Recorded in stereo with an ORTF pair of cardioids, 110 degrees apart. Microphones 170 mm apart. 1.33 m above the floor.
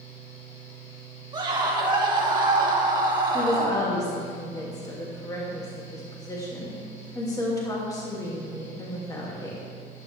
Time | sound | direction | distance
0.0 | a fan | 45° left | 3.5 m
1.3 | a scream | 25° right | 2.5 m
3.3 | a woman speaking | 20° left | 2.5 m